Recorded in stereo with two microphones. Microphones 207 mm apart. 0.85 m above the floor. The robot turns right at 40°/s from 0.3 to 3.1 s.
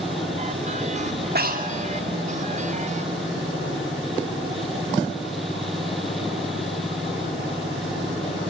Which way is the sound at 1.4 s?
50° right (ahead or behind).